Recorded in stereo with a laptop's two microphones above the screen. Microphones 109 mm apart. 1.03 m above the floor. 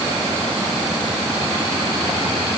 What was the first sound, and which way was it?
Only background noise.